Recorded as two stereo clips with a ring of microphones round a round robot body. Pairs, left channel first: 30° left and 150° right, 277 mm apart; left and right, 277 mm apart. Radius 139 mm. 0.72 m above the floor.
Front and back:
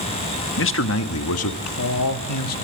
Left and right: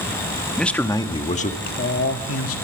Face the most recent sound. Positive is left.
turn(degrees=55)